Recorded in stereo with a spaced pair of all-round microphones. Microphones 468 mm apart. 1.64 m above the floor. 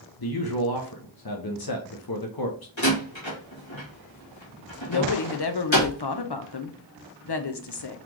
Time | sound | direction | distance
0.2 | a man speaking | 50° left (ahead or behind) | 0.8 m
2.8 | a door slam | 70° left (ahead or behind) | 1.6 m
4.9 | a woman speaking | 55° left (ahead or behind) | 0.7 m